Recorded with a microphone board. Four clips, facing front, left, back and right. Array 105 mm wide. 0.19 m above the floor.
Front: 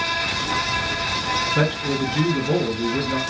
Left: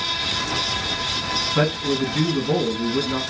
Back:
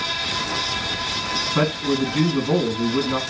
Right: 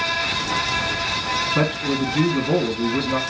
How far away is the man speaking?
About 1.9 m.